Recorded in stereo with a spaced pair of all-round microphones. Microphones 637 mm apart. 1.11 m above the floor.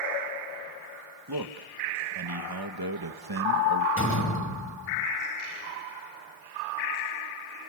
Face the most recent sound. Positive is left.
turn(degrees=20)  # may be behind; listen again after turning